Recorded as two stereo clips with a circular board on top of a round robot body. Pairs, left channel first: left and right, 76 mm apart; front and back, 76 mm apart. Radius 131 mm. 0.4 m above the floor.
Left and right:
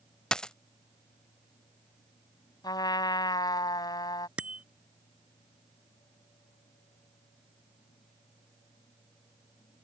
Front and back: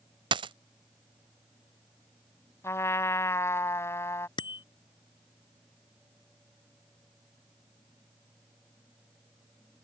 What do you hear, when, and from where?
0.3 s a dropped coin: 170° left
2.6 s a trumpet: 60° left
4.4 s a bicycle bell: 15° right